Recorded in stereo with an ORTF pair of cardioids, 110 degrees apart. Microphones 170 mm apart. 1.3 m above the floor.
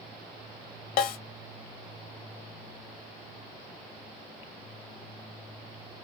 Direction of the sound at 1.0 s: 60° left.